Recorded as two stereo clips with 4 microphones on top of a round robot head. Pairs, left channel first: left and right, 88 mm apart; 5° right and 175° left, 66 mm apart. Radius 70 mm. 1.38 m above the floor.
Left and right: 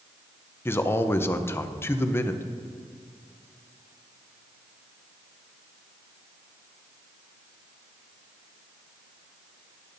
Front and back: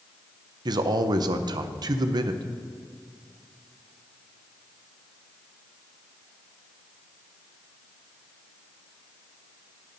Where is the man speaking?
155° left, 0.6 m.